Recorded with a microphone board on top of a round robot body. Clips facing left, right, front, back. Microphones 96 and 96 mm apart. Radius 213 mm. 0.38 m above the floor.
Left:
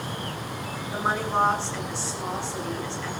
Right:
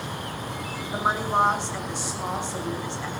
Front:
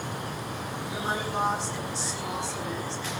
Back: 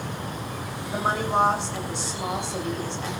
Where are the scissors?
No scissors in this recording.